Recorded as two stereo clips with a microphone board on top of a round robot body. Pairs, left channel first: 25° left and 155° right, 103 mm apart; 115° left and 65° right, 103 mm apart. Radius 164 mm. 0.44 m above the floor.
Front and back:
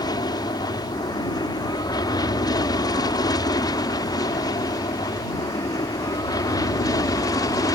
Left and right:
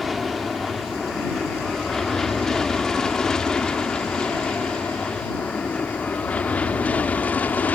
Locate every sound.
0.0 s an aircraft: 20° left; by 7.8 s 45° left